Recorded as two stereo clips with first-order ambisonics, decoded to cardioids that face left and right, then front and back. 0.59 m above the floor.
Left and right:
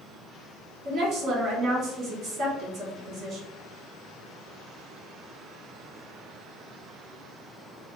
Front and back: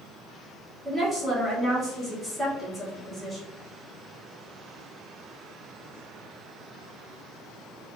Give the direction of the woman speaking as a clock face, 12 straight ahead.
4 o'clock.